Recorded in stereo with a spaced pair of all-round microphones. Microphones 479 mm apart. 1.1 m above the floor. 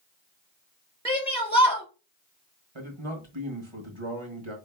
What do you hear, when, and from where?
1.1 s a shout: 10° left (ahead or behind), 3 m
2.8 s a man speaking: 70° right (ahead or behind), 1.5 m